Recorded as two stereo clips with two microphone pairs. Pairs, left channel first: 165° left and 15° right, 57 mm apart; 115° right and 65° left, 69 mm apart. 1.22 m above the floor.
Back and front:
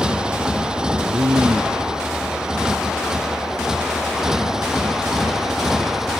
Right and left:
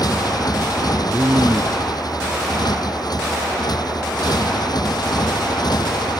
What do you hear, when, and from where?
0.0 s a motorcycle: 90° right; by 6.2 s 95° right
1.0 s a man speaking: straight ahead